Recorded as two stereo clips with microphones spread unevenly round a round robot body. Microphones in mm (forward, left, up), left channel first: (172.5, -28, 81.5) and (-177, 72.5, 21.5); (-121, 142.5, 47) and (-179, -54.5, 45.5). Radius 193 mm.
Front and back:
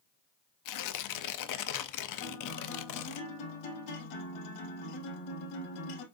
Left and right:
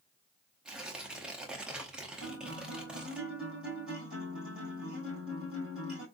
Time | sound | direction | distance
0.7 | tearing paper | 25° right | 0.7 m
2.2 | a guitar | 15° right | 3.5 m